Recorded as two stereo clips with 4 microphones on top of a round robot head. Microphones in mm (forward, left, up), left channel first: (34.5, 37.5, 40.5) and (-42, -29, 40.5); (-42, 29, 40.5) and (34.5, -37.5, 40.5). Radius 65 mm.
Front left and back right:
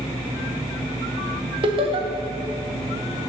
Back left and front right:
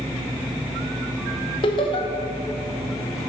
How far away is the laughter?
About 1.1 m.